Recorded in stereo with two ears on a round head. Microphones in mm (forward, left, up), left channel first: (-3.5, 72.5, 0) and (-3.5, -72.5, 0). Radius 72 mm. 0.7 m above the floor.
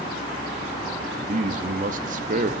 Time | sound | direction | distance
1.2 | a man speaking | 50° right (ahead or behind) | 0.7 m